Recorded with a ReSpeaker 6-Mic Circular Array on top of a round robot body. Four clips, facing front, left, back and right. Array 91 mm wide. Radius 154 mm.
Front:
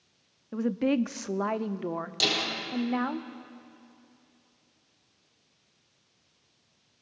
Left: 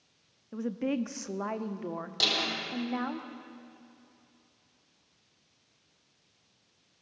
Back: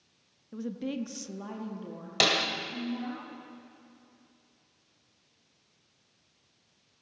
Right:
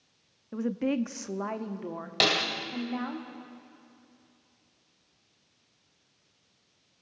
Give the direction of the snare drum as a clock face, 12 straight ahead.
5 o'clock.